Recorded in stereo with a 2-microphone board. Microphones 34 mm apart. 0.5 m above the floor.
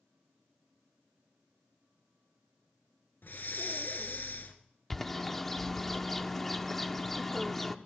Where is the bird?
10° left (ahead or behind), 0.7 m.